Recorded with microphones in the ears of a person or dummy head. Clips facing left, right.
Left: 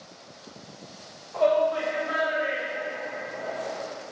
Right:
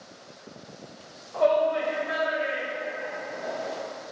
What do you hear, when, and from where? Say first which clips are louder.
1.3 s a shout: even; centre (ahead or behind), 0.7 m; by 3.8 s 15° right (ahead or behind), 2.5 m